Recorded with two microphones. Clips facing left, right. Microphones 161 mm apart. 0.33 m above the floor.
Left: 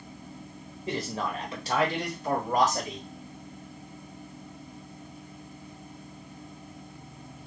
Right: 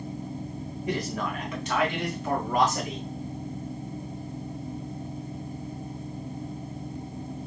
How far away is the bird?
I don't hear a bird.